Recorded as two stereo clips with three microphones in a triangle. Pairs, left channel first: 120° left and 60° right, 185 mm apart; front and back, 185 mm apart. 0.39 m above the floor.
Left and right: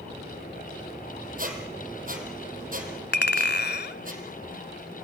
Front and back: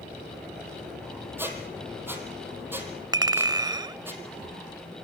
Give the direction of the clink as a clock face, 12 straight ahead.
8 o'clock.